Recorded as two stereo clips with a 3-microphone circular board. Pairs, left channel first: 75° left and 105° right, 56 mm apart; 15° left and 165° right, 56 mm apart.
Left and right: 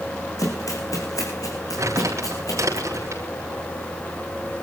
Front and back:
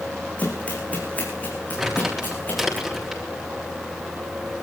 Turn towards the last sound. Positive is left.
turn(degrees=-80)